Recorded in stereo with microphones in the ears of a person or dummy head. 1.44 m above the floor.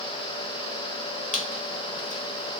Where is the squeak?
40° left (ahead or behind), 0.8 m.